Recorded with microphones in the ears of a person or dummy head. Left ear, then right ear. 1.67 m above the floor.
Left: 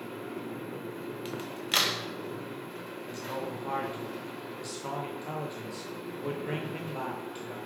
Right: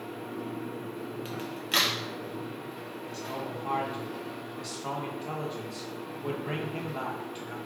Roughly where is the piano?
I don't hear a piano.